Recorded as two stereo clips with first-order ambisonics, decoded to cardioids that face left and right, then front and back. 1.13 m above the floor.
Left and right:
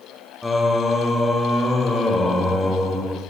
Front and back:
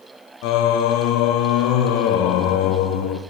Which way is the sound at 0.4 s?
10° left.